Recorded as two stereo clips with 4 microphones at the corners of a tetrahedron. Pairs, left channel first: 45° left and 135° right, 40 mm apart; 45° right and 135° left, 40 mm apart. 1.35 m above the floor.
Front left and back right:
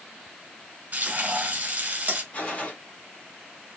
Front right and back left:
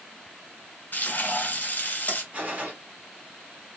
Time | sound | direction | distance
0.9 | frying | 90° right | 1.2 m
2.3 | a gunshot | 90° left | 1.4 m